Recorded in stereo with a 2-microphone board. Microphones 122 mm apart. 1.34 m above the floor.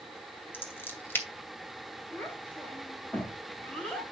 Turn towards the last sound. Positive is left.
turn(degrees=10)  # may be behind; listen again after turning